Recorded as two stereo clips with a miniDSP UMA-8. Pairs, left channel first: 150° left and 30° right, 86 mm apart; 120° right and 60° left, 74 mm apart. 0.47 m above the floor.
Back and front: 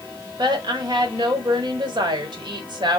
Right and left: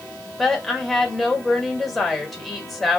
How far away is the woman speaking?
About 1.4 m.